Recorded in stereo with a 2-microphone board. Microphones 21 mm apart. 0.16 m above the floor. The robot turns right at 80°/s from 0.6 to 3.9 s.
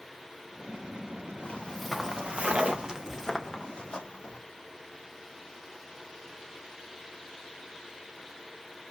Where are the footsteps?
60° left (ahead or behind), 1.2 m; by 4.4 s 75° left (ahead or behind), 3 m.